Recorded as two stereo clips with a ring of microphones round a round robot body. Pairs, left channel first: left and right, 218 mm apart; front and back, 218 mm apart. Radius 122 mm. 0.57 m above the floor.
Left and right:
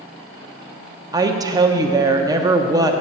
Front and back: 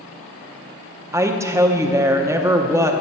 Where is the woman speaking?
130° right, 0.7 m.